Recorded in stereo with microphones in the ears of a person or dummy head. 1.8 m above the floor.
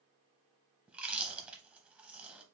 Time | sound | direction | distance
0.9 | chewing | centre (ahead or behind) | 0.7 m